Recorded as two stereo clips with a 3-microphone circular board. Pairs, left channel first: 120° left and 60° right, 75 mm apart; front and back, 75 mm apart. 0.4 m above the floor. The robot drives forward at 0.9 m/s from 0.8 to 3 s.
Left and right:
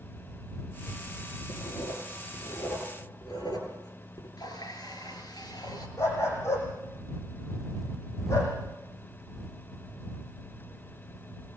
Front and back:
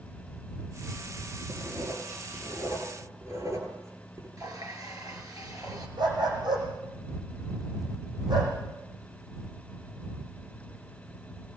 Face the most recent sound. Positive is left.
turn(degrees=170)